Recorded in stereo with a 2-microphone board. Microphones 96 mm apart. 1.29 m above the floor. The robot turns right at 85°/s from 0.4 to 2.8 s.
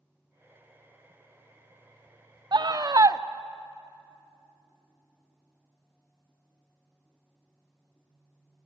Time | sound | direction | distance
2.5 | a scream | 50° right (ahead or behind) | 0.7 m